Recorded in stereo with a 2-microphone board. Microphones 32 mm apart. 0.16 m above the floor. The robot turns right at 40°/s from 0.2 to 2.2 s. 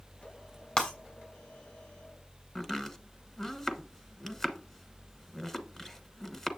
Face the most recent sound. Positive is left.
turn(degrees=10)  # may be behind; listen again after turning